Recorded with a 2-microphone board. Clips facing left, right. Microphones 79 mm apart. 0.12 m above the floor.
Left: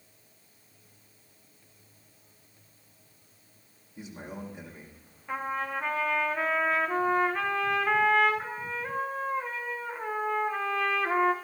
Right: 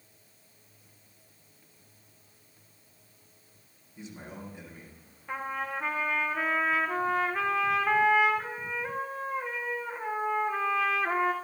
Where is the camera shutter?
I don't hear a camera shutter.